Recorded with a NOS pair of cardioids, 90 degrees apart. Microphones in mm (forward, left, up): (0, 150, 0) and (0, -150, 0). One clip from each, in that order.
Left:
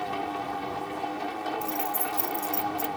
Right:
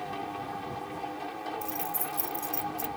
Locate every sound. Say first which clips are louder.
0.0 s a machine running: left 5 dB; 35° left
1.6 s keys jangling: left 5 dB; 15° left